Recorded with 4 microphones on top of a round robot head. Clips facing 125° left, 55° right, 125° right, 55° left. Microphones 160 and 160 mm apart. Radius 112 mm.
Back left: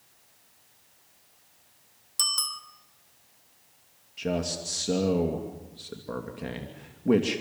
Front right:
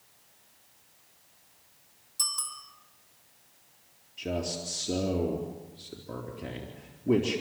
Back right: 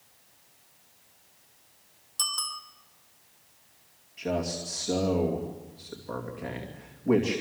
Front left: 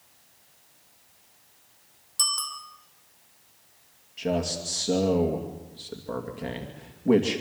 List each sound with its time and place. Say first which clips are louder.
2.2 s a bicycle bell: back left 4 dB, front left 3 dB; 140° left, 2.5 m
4.2 s a man speaking: back left 3 dB, front left 3 dB; 110° left, 2.5 m